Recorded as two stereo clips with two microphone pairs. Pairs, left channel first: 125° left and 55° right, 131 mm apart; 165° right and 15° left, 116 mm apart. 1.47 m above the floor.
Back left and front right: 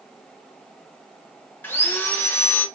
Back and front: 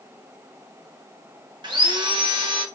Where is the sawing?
55° left, 0.8 m.